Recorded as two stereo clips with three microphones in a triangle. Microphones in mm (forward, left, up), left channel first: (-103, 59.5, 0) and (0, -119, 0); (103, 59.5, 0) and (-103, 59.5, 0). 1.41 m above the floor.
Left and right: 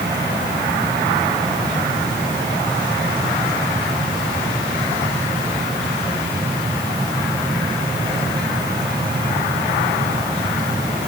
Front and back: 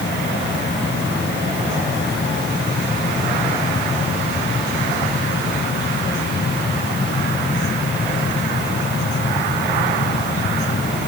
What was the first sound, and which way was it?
Only background noise.